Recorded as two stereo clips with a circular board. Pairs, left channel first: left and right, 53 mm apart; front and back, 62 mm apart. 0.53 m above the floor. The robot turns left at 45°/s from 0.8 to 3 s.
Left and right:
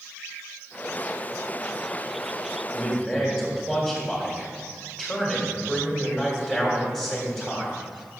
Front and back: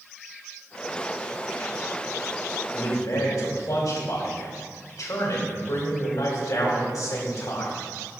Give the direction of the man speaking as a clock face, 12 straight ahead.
11 o'clock.